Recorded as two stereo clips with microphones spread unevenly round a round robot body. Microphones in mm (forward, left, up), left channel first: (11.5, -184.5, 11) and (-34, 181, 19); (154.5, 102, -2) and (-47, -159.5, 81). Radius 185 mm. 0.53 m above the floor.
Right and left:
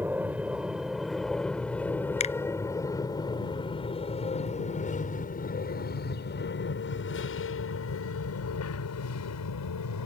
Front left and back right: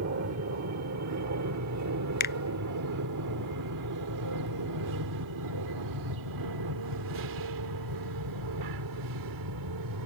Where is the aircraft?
Straight behind; by 10.1 s 110° right.